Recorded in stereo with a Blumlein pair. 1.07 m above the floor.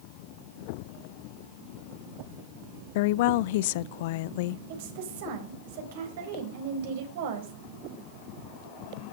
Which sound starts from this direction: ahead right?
A woman speaking, at 4.7 s.